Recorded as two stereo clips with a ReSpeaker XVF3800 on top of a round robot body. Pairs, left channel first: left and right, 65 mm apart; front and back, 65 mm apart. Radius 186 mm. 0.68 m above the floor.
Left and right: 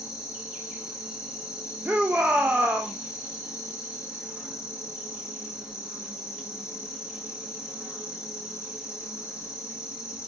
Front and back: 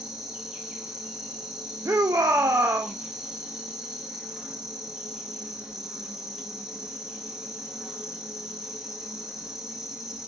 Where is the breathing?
No breathing in this recording.